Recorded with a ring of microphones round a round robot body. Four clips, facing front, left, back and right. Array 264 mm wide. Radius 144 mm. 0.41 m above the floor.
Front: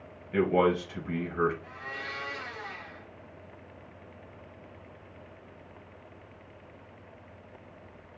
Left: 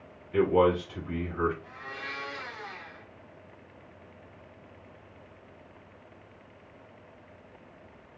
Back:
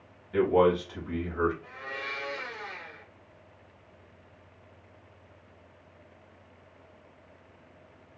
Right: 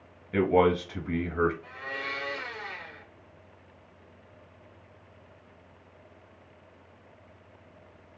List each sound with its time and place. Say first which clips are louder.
0.3 s a man speaking: even, back 2 dB; 85° right, 3 m
1.6 s a blender: right 3 dB, back 1 dB; 115° right, 2 m